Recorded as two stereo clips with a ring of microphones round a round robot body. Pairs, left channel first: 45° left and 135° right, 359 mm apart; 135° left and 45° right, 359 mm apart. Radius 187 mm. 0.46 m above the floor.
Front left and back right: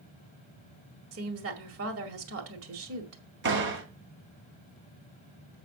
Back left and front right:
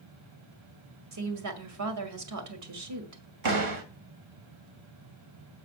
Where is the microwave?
No microwave in this recording.